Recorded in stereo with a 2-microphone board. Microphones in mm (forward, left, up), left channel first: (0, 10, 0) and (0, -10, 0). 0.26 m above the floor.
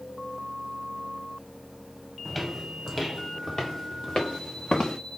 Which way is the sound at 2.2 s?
10° left (ahead or behind).